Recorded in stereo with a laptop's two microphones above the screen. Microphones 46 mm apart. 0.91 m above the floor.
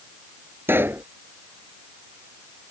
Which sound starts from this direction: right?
A pop, at 0.7 s.